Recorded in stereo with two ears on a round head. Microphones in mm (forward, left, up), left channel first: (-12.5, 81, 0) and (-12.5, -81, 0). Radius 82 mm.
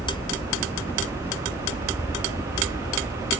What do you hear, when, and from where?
0.0 s a helicopter: 10° left (ahead or behind); by 3.4 s 20° left (ahead or behind)